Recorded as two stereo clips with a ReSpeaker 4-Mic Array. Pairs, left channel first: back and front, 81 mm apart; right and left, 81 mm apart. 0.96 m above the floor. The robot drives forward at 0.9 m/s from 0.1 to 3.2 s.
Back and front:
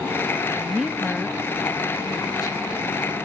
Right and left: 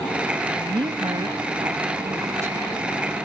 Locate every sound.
0.6 s a woman speaking: 70° left; by 2.6 s 145° left